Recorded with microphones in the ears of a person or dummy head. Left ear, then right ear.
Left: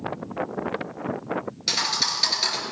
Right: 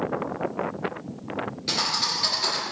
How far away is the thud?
About 4 m.